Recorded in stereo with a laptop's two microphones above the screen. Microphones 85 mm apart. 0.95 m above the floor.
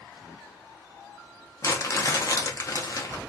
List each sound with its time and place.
1.6 s crumpling: 40° left (ahead or behind), 0.7 m